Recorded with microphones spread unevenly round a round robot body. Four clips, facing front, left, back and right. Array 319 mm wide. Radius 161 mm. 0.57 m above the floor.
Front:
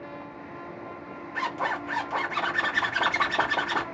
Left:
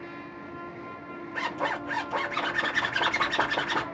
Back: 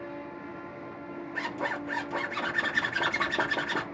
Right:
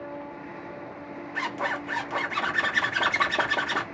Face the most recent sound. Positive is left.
turn(degrees=-155)